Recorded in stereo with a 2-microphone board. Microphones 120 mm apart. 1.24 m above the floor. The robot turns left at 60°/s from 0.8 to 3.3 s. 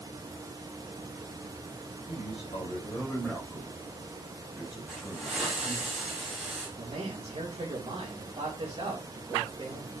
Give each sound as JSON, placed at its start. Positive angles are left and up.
{"t": 2.0, "sound": "a man speaking", "azimuth_deg": 70, "distance_m": 6.5}
{"t": 4.9, "sound": "a hiss", "side_deg": -10, "distance_m": 7.5}
{"t": 6.8, "sound": "a man speaking", "side_deg": -45, "distance_m": 3.0}